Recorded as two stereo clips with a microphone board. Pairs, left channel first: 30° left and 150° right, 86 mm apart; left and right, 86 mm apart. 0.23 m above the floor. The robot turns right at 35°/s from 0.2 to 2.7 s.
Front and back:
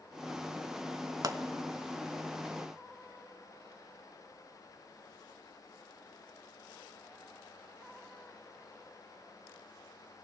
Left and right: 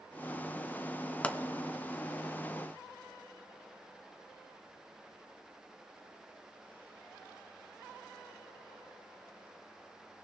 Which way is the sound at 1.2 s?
165° left.